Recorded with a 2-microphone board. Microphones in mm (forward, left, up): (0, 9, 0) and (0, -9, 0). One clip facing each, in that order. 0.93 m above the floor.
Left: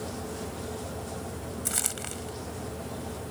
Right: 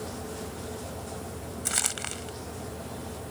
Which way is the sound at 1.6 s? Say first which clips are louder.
Right 4 dB; 25° right (ahead or behind).